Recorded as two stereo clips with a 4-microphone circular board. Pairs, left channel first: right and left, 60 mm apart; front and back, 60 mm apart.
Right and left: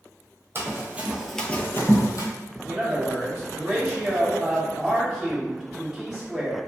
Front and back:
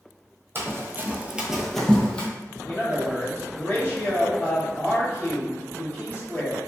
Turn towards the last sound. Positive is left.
turn(degrees=20)